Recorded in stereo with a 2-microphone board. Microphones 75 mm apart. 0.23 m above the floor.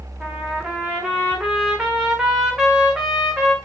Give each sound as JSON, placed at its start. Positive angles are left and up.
{"t": 0.2, "sound": "a trumpet", "side_deg": -10, "distance_m": 7.0}